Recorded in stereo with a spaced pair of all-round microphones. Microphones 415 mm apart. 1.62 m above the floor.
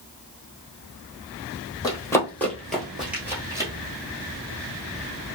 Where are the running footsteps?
10° left (ahead or behind), 1.9 m; by 3.7 s 10° right (ahead or behind), 1.8 m.